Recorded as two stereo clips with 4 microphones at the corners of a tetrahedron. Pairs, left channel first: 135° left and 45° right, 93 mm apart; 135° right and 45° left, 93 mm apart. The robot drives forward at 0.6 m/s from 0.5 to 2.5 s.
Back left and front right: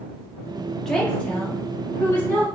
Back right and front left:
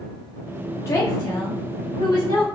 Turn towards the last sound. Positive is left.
turn(degrees=-170)